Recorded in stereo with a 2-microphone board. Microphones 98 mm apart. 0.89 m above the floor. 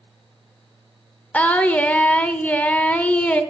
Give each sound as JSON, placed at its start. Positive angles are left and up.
{"t": 1.3, "sound": "singing", "side_deg": 15, "distance_m": 0.7}